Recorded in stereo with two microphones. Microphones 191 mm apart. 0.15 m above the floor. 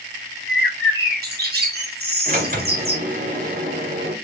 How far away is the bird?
About 1.4 m.